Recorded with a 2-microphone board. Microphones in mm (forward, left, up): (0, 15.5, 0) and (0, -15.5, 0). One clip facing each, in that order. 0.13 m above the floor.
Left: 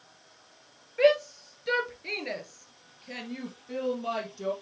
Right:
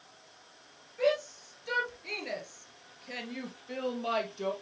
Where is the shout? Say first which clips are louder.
Left 6 dB; 45° left (ahead or behind), 2.5 m; by 4.5 s 20° right (ahead or behind), 3 m.